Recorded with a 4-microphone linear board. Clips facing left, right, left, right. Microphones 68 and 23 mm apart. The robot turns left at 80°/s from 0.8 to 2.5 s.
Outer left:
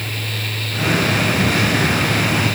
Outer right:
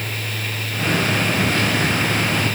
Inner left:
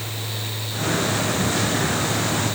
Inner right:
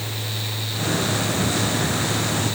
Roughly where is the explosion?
No explosion in this recording.